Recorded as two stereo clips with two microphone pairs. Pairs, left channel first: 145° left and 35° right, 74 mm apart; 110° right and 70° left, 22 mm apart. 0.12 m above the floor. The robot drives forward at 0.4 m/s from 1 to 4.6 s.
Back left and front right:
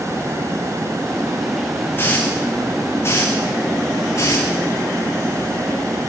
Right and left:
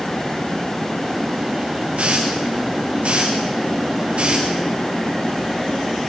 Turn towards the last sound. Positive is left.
turn(degrees=95)